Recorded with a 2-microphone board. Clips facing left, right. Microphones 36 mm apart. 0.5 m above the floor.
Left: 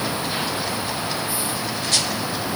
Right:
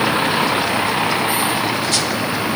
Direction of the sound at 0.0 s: 55° right (ahead or behind).